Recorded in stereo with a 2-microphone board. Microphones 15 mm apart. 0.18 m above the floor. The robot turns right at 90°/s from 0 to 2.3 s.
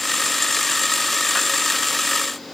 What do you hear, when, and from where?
Only background noise.